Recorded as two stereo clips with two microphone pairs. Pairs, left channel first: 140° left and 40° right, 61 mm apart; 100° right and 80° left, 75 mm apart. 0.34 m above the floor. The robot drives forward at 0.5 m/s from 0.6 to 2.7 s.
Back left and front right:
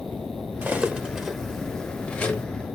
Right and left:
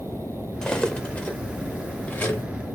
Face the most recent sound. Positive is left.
turn(degrees=-165)